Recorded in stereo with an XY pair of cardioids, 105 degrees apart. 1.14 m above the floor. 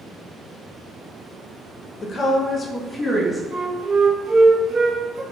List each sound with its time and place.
2.0 s a woman speaking: 50° left, 0.6 m; by 3.4 s 25° left, 1.3 m
3.5 s a flute: 35° right, 0.8 m